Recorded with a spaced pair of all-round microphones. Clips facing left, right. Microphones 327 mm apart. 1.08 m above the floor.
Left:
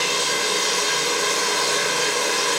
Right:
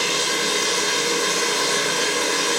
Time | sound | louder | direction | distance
0.0 | running water | right 1 dB | 25° right (ahead or behind) | 0.8 m